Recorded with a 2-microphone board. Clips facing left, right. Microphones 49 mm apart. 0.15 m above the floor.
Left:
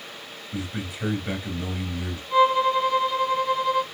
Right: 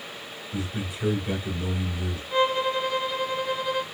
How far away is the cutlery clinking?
I don't hear cutlery clinking.